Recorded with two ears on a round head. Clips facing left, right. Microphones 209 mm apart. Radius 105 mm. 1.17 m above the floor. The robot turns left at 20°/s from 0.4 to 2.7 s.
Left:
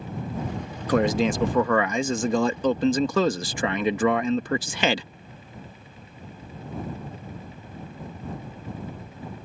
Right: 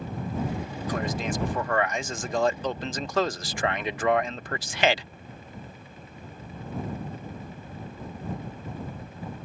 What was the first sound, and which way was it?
A man speaking, 120° left.